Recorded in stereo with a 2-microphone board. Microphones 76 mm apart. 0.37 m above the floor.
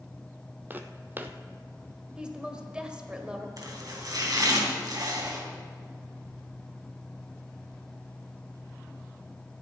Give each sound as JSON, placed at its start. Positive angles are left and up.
{"t": 0.7, "sound": "footsteps", "side_deg": -25, "distance_m": 0.8}
{"t": 2.2, "sound": "a woman speaking", "side_deg": -10, "distance_m": 1.8}
{"t": 3.6, "sound": "chopping", "side_deg": -55, "distance_m": 3.0}